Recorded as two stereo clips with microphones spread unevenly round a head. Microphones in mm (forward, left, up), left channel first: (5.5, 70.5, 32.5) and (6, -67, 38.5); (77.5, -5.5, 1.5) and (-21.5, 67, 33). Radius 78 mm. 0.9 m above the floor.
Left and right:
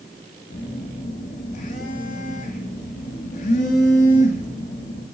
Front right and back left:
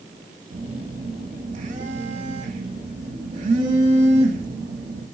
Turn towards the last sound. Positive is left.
turn(degrees=115)